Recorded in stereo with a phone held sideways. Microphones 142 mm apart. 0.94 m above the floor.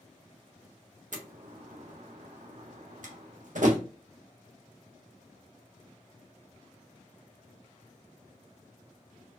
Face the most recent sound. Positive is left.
turn(degrees=-65)  # may be behind; listen again after turning